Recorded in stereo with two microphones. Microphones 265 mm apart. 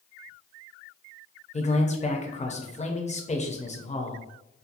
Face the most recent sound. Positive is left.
turn(degrees=25)  # may be behind; listen again after turning